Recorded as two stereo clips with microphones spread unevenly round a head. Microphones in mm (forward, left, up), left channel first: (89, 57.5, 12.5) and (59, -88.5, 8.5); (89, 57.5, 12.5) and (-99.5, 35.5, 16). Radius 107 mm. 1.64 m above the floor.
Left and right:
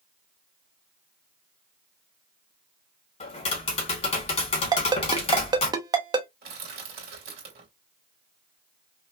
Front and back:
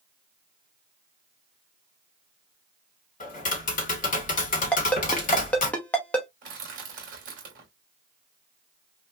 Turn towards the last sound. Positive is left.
turn(degrees=-125)